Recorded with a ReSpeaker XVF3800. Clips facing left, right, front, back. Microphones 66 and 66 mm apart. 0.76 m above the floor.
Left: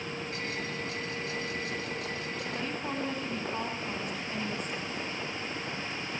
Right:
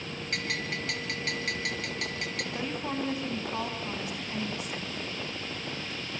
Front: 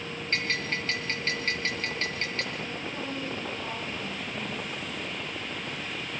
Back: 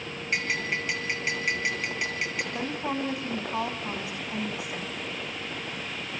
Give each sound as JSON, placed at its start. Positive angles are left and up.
{"t": 0.3, "sound": "a bell", "azimuth_deg": -105, "distance_m": 5.5}
{"t": 2.5, "sound": "a woman speaking", "azimuth_deg": -170, "distance_m": 6.0}